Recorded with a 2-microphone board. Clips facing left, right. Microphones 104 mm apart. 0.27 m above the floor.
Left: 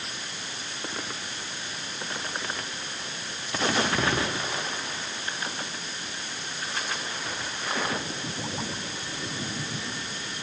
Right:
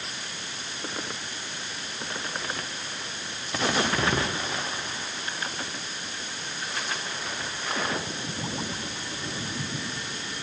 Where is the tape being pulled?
I don't hear tape being pulled.